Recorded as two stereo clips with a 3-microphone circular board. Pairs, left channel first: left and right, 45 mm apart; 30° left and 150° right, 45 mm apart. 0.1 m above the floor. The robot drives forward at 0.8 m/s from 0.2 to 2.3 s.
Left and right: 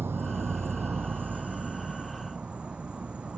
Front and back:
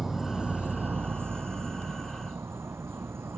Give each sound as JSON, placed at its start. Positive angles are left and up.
{"t": 0.0, "sound": "an insect", "azimuth_deg": -70}